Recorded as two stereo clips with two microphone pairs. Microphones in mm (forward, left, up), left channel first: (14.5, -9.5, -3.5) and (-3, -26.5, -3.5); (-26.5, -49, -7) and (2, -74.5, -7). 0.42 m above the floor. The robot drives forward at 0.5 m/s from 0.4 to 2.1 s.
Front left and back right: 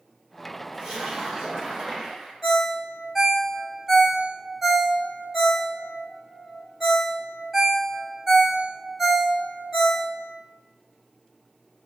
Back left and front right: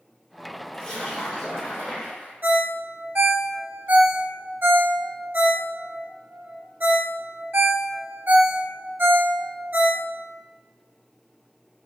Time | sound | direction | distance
0.7 | a splash | 150° right | 1.5 m
2.4 | a ringtone | 65° right | 0.9 m